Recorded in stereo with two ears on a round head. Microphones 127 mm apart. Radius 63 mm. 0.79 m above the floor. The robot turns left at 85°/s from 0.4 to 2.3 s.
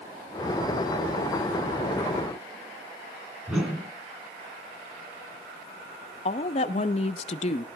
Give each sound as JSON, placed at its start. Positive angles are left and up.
{"t": 3.5, "sound": "a whoosh", "side_deg": -5, "distance_m": 3.5}
{"t": 6.2, "sound": "a woman speaking", "side_deg": 45, "distance_m": 0.7}